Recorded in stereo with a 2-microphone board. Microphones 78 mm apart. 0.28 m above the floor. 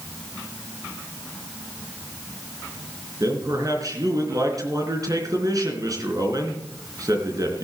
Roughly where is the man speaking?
Right.